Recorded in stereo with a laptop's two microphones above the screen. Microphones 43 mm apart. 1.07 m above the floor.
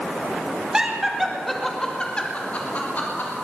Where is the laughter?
20° right (ahead or behind), 2.5 m; by 3.3 s 50° left (ahead or behind), 3.5 m.